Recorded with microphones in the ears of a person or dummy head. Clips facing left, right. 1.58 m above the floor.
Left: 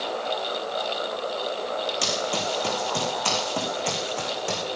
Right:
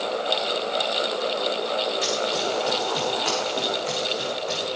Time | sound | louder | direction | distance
2.0 | running footsteps | right 2 dB | 75° left (ahead or behind) | 6 m